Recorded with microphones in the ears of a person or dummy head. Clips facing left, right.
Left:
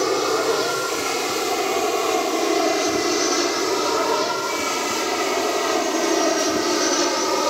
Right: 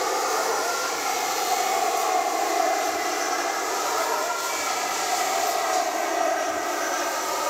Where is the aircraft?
55° left (ahead or behind); by 7.5 s 60° left (ahead or behind).